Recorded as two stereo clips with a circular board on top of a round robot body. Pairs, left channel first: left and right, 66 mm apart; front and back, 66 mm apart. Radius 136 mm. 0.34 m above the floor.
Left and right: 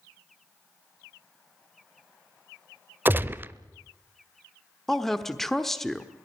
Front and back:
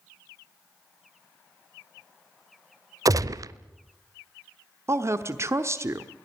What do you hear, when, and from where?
3.0 s a gunshot: 150° right, 0.8 m
4.9 s a woman speaking: 170° left, 1.3 m